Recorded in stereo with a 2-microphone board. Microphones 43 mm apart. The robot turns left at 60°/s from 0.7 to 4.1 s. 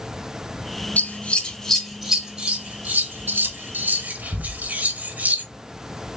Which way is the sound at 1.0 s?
40° left (ahead or behind).